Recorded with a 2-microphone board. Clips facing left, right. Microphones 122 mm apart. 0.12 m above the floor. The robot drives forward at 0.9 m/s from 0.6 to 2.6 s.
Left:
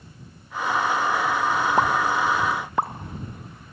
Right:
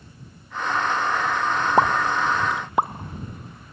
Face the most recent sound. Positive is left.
turn(degrees=-20)  # may be behind; listen again after turning